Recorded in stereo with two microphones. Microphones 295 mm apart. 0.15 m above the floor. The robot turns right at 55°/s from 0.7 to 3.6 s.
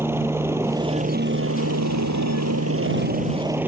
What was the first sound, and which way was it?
A helicopter, 10° right (ahead or behind).